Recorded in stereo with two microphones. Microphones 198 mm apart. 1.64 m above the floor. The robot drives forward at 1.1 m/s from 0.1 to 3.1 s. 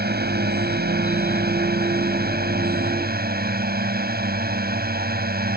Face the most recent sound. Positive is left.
turn(degrees=-55)  # may be behind; listen again after turning